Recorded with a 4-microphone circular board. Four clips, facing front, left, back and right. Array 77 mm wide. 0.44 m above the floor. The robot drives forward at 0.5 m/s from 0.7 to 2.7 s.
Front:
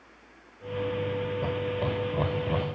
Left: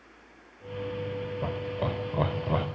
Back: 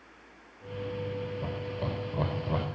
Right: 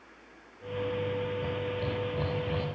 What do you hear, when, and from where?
1.4 s laughter: 65° left, 2 m; by 2.7 s 90° left, 2.0 m